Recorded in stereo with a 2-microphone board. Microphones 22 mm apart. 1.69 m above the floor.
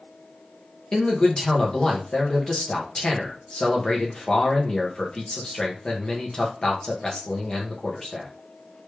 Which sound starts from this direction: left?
A man speaking, at 0.9 s.